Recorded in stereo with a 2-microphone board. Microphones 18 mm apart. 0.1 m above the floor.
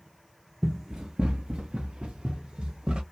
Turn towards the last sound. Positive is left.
turn(degrees=-60)  # may be behind; listen again after turning